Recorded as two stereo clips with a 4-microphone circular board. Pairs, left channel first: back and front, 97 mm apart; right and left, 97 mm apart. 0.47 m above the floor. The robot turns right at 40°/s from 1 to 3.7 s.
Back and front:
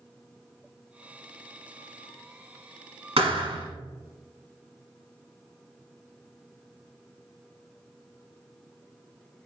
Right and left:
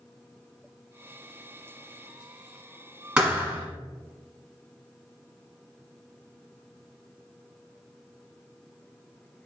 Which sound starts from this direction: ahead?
A thud, at 3.2 s.